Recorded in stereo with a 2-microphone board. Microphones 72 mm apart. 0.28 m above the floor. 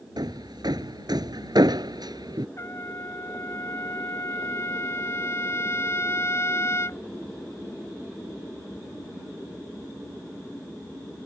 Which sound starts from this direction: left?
A trumpet, at 2.6 s.